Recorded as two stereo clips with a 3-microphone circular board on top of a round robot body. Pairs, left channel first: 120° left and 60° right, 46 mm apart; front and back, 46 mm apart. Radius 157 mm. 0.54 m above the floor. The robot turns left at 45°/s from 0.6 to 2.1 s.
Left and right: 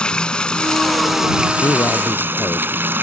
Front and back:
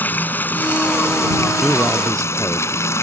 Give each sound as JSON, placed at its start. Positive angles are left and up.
{"t": 0.0, "sound": "running water", "azimuth_deg": 50}
{"t": 1.6, "sound": "a man speaking", "azimuth_deg": 100}